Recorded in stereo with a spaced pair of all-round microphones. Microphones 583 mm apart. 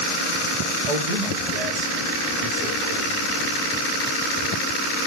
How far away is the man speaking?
About 1.9 m.